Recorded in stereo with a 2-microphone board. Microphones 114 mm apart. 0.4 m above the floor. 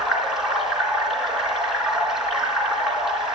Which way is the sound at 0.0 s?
5° right (ahead or behind).